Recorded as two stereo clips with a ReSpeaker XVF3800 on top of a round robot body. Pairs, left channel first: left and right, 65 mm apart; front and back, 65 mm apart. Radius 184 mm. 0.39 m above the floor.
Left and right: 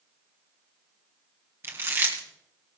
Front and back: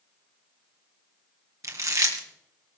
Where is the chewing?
145° right, 2 m.